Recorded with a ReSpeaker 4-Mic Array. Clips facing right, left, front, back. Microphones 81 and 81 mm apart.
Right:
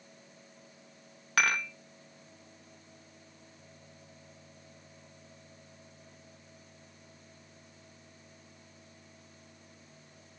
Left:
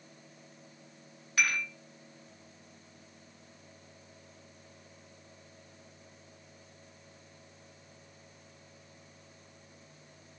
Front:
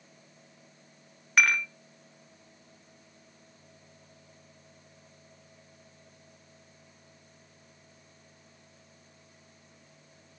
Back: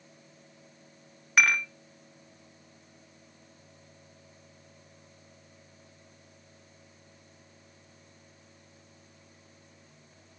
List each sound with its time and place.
1.4 s dishes clattering: 95° right, 1.2 m